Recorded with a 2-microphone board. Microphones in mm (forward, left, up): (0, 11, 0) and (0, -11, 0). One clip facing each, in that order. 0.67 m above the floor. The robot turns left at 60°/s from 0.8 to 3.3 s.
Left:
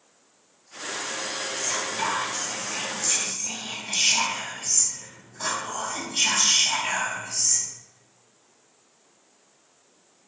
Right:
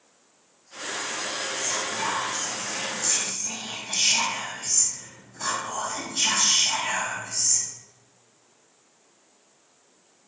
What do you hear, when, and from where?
1.6 s whispering: 165° left, 0.8 m; by 7.6 s 65° left, 0.8 m